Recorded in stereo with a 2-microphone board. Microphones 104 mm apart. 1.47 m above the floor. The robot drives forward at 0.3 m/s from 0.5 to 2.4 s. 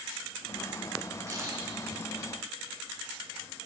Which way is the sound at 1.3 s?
35° right (ahead or behind).